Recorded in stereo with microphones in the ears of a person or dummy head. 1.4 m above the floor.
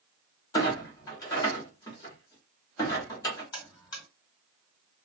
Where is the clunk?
20° left (ahead or behind), 1.3 m.